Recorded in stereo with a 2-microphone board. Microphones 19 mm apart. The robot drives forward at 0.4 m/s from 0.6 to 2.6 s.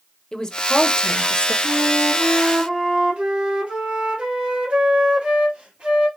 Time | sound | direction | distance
0.3 | a woman speaking | 30° left (ahead or behind) | 0.9 m
1.6 | a flute | 75° right (ahead or behind) | 1.9 m